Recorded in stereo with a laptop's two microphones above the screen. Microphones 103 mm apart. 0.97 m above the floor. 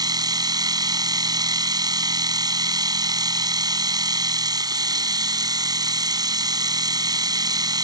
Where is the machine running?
40° right (ahead or behind).